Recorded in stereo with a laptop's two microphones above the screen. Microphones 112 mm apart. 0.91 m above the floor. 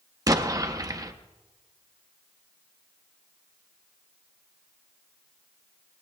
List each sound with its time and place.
0.3 s an explosion: 35° right (ahead or behind), 0.7 m